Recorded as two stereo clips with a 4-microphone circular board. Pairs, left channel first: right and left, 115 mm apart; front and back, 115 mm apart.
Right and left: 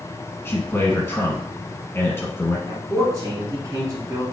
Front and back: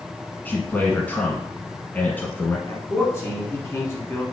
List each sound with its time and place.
0.5 s a man speaking: 50° right, 1.1 m
2.7 s a man speaking: 55° left, 1.3 m